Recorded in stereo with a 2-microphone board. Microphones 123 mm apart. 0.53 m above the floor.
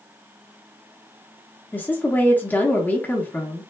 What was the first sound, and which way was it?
A woman speaking, 15° left (ahead or behind).